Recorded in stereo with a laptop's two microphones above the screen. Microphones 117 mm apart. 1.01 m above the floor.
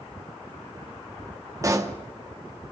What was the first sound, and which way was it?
A pop, 30° right (ahead or behind).